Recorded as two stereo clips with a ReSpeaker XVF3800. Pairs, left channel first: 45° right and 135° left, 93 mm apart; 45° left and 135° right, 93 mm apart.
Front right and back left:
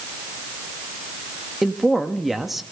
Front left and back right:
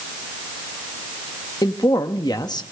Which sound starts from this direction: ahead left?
A man speaking, at 1.6 s.